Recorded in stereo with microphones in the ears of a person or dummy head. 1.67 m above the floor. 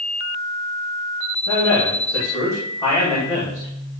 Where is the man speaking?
20° left (ahead or behind), 2.5 m.